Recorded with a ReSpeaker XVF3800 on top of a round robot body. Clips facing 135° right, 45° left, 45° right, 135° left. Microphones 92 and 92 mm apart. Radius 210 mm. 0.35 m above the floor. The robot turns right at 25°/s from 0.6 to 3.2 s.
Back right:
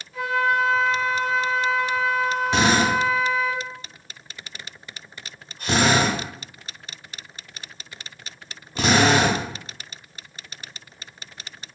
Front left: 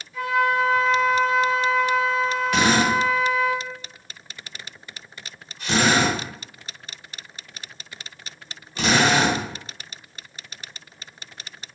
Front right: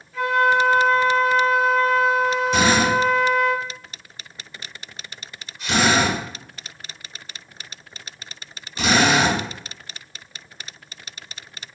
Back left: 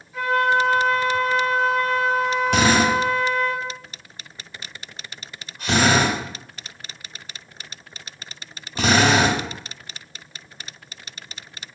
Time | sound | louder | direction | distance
0.1 | a flute | front left 1 dB, front right 1 dB | 145° right | 1.5 m
2.5 | a drill | even, back left 1 dB | 160° left | 1.1 m